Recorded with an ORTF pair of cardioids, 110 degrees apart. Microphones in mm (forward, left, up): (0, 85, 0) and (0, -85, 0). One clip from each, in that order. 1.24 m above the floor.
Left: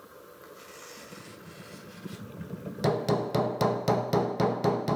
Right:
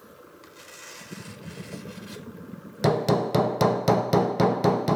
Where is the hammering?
20° right, 0.7 m.